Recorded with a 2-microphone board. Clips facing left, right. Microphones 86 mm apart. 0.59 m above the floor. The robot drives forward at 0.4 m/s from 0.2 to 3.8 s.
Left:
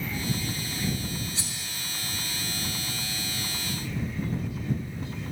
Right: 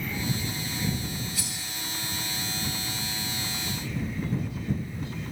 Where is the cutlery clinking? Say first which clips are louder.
Right 1 dB; 25° left (ahead or behind), 0.5 m; by 1.5 s 30° left (ahead or behind), 0.5 m.